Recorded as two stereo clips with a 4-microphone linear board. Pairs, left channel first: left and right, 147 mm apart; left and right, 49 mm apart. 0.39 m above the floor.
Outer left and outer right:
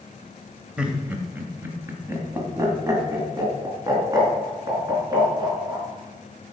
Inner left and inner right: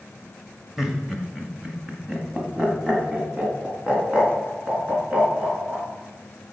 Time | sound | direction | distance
0.8 | laughter | 5° right (ahead or behind) | 1.6 m